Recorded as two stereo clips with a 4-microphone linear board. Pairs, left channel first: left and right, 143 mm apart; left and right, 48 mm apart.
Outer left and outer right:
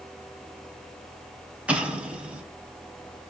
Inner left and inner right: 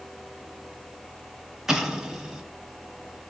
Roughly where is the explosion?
Centre.